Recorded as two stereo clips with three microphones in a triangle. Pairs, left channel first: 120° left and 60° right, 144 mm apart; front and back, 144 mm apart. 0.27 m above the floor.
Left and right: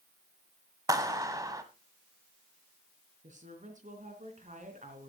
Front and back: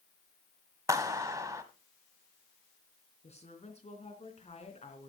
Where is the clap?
120° right, 1.4 m.